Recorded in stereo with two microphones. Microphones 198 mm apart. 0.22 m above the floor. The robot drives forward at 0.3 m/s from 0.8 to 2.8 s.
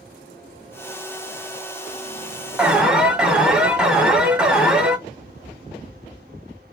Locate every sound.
2.6 s an alarm: 5° right (ahead or behind), 1.2 m